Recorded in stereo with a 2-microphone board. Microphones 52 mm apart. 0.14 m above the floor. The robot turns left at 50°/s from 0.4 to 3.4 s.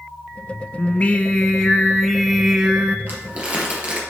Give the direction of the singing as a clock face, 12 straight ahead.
10 o'clock.